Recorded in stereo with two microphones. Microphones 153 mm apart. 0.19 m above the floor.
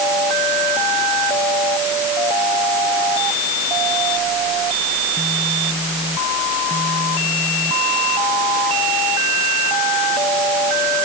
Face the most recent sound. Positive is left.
No sound to turn to.